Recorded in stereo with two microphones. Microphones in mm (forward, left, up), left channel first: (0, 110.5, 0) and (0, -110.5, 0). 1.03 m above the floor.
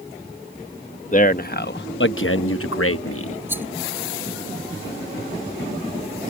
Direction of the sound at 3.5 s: 10° right (ahead or behind).